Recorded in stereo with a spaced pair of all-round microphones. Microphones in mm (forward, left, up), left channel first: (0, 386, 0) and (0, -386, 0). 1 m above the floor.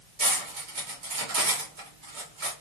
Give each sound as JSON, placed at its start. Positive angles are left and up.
{"t": 0.2, "sound": "cutlery clinking", "side_deg": -75, "distance_m": 1.3}